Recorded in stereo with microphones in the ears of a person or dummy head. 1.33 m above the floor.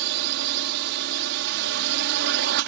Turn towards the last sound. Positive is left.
turn(degrees=-60)  # may be behind; listen again after turning